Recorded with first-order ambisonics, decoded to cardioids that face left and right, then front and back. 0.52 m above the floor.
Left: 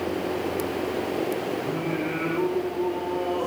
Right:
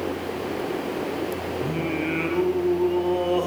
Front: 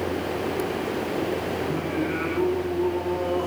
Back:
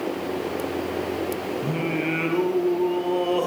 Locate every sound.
1.6 s singing: 145° right, 5 m